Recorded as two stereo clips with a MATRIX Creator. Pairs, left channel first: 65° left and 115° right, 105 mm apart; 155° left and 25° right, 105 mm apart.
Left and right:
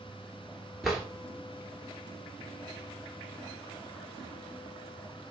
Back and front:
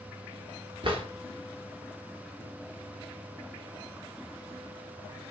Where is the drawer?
25° right, 1.0 m.